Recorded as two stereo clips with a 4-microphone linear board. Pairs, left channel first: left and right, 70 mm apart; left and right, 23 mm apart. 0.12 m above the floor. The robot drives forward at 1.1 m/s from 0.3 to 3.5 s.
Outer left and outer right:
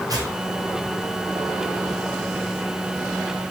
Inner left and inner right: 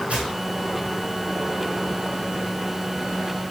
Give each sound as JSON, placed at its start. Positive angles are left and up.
{"t": 0.1, "sound": "tearing paper", "side_deg": -65, "distance_m": 3.0}